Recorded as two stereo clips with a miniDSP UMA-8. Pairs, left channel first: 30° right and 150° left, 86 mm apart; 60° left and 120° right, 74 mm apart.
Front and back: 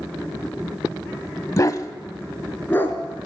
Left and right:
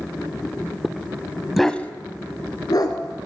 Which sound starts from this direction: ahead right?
A dog barking, at 1.6 s.